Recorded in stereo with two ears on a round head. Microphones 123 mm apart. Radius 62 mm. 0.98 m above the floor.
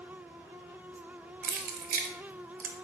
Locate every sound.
1.4 s keys jangling: 70° right (ahead or behind), 0.6 m